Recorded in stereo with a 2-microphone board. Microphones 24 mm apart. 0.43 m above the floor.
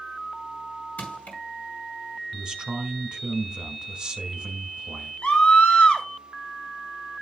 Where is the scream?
55° left (ahead or behind), 2 m.